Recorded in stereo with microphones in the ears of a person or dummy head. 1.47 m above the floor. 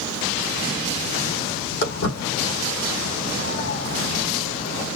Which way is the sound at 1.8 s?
60° left (ahead or behind).